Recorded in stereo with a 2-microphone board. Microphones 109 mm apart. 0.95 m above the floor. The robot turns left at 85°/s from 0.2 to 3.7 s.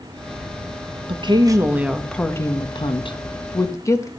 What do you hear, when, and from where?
1.1 s a woman speaking: 100° right, 1.3 m; by 4.1 s 35° left, 1.3 m